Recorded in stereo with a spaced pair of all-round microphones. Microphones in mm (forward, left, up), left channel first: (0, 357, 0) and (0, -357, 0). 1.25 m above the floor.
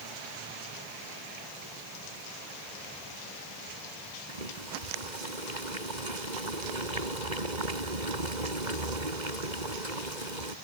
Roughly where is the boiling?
Right.